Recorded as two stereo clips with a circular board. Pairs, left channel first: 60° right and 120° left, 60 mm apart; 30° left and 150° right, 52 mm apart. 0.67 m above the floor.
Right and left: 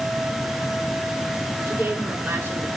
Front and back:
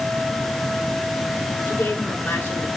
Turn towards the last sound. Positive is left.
turn(degrees=65)